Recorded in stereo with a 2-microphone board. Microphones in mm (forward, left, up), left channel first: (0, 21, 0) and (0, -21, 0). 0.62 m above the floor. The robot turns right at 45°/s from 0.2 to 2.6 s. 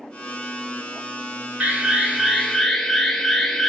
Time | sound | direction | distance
1.6 | an alarm | 35° right | 1.5 m